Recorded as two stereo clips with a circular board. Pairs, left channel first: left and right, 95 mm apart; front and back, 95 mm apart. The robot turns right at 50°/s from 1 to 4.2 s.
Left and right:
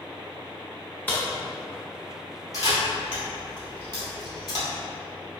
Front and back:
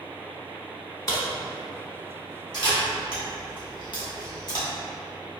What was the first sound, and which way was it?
A crack, 30° left.